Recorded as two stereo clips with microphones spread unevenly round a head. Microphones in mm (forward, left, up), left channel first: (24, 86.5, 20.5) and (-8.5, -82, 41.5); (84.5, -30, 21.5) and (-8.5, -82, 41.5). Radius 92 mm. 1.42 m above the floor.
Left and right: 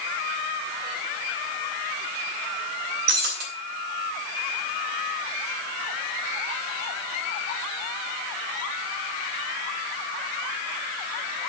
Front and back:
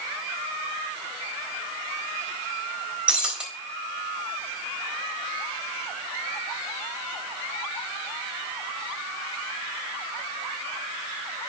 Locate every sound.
3.1 s breaking glass: 75° right, 3.5 m